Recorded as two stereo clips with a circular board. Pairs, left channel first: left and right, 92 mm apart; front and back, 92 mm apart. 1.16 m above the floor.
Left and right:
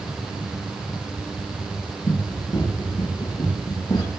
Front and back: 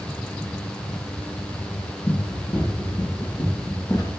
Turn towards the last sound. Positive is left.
turn(degrees=55)